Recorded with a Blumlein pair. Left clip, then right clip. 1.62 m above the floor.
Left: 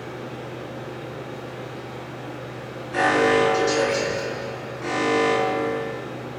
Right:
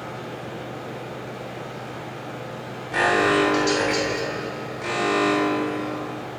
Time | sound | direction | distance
0.0 | a machine running | 40° right | 1.0 m
2.9 | an alarm | 45° right | 1.0 m